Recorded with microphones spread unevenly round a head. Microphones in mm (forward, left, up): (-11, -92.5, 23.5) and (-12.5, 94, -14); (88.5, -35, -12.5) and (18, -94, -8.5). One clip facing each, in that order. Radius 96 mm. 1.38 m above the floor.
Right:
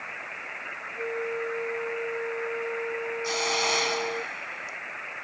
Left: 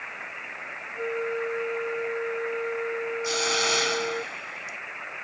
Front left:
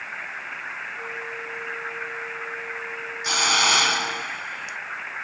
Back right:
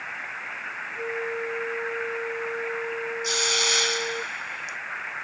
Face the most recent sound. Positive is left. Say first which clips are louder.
# left 1 dB, front left 9 dB
turn(degrees=10)